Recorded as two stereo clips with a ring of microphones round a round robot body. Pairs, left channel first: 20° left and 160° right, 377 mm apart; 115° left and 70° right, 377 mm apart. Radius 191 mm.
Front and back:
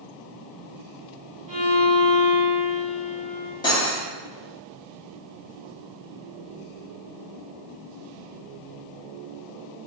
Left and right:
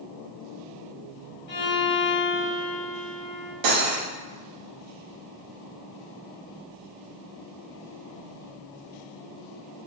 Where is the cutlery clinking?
55° right, 0.6 m.